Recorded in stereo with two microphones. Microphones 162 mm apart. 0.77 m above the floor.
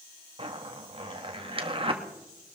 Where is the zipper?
35° right (ahead or behind), 1.5 m.